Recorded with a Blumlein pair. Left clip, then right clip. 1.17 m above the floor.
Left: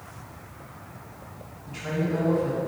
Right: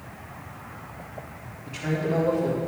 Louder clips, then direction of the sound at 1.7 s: Right 2 dB; 30° right.